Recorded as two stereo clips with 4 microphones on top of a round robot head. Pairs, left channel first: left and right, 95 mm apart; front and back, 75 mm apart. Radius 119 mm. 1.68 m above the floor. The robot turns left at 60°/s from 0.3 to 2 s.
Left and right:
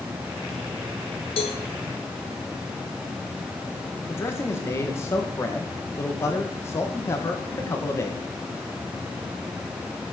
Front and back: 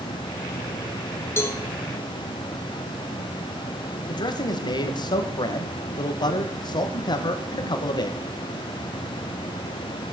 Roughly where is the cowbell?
Ahead left.